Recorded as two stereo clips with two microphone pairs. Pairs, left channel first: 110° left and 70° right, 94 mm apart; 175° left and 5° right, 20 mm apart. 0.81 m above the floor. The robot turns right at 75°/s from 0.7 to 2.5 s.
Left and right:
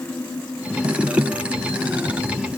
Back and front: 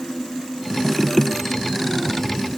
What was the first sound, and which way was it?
Only background noise.